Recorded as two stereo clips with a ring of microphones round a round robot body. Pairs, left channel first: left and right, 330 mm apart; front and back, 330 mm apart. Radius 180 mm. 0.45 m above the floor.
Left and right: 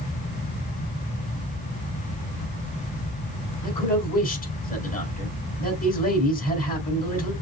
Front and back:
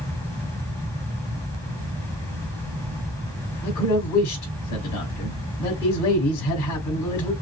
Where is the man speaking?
25° left, 3.5 m.